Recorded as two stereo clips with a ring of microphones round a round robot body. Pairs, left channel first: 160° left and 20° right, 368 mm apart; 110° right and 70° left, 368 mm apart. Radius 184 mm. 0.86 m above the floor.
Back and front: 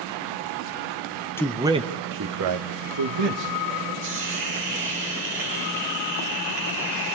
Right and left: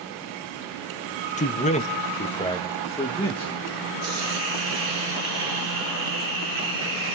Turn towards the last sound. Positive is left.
turn(degrees=35)